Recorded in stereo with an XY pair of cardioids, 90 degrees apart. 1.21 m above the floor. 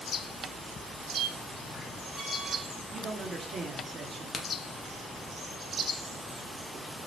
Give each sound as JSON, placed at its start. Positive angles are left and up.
{"t": 1.1, "sound": "a squeak", "azimuth_deg": -45, "distance_m": 1.1}
{"t": 2.9, "sound": "a man speaking", "azimuth_deg": -50, "distance_m": 0.7}
{"t": 4.3, "sound": "a crack", "azimuth_deg": 45, "distance_m": 0.6}